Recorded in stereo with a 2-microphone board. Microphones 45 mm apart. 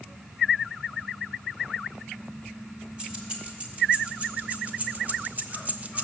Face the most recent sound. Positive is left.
turn(degrees=-30)  # may be behind; listen again after turning